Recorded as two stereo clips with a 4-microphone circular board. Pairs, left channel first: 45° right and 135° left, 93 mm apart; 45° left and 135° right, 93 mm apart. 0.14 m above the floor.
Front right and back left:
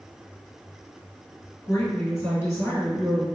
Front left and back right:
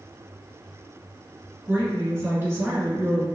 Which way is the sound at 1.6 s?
90° right.